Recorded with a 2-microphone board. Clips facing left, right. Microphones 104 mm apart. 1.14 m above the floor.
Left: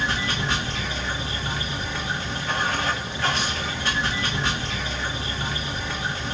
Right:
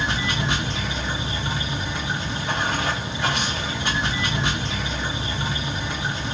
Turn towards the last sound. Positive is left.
turn(degrees=-15)  # may be behind; listen again after turning